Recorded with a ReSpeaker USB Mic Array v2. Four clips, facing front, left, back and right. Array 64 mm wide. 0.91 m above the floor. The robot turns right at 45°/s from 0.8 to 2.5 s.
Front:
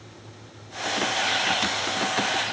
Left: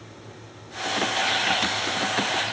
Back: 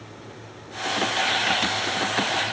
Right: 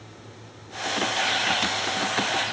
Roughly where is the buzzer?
I don't hear a buzzer.